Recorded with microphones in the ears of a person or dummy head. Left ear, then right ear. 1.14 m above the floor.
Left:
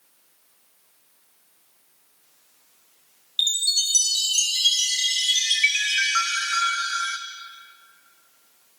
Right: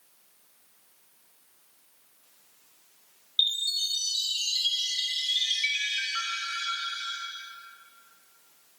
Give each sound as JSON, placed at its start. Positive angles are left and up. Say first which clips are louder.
{"t": 3.4, "sound": "a chime", "louder": "left 4 dB", "side_deg": 50, "distance_m": 0.8}